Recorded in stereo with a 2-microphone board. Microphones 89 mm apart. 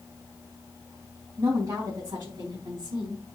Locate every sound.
1.4 s a woman speaking: 50° right (ahead or behind), 3.5 m; by 3.2 s 75° right (ahead or behind), 4 m